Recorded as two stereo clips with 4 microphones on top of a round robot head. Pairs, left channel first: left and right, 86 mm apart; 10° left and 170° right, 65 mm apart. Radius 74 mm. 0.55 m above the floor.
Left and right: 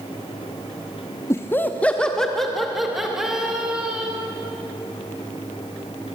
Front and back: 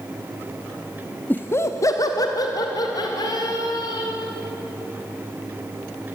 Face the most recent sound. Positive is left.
turn(degrees=-10)